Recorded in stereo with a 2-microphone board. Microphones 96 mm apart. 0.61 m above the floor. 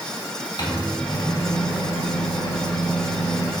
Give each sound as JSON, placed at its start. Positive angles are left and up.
{"t": 0.6, "sound": "a microwave", "side_deg": 50, "distance_m": 1.1}